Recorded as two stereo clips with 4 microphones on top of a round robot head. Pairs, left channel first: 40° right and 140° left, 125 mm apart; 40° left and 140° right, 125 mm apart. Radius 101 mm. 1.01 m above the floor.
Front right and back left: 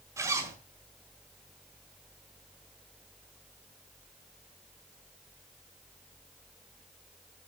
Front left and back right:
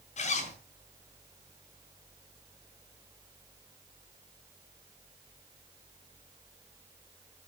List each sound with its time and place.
0.2 s a zipper: 70° left, 3 m